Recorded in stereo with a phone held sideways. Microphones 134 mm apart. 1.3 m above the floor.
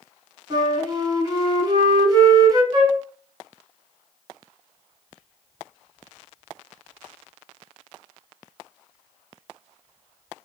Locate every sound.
0.5 s a flute: 30° right (ahead or behind), 1.2 m
2.7 s a flute: 30° right (ahead or behind), 1.4 m